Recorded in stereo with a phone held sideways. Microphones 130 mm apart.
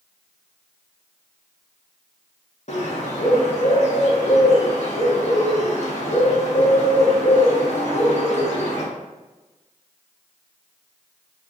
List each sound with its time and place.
2.7 s a bird: 55° left (ahead or behind), 1.0 m